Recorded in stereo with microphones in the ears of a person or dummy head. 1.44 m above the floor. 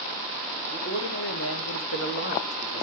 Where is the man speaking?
50° left (ahead or behind), 1.0 m; by 2.9 s 30° left (ahead or behind), 1.1 m.